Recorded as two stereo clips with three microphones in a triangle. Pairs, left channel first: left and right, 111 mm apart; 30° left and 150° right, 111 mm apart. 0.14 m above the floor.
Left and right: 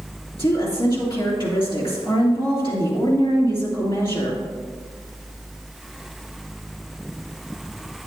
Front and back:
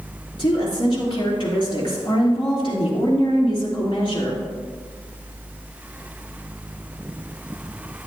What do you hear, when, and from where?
0.4 s a woman speaking: 65° left, 2.5 m